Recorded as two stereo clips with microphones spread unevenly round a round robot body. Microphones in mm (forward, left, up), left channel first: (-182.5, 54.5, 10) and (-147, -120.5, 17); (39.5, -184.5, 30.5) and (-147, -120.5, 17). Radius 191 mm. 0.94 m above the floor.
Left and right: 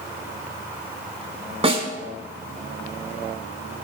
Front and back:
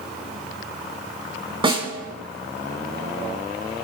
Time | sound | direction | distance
1.6 | a snare drum | 135° right | 5 m